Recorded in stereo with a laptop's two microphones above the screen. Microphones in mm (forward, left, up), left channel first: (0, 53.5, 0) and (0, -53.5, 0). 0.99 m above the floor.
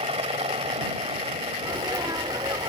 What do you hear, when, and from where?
0.0 s a helicopter: 70° right (ahead or behind)
1.6 s a sneeze: 40° right (ahead or behind)